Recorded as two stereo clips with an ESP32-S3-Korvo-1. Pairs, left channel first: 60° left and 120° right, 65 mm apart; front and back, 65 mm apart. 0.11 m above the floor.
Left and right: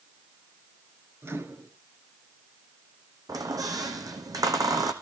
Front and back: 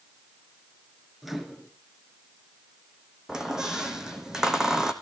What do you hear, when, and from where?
1.2 s a microwave: 95° right, 1.5 m
3.3 s a squeak: 100° right, 1.6 m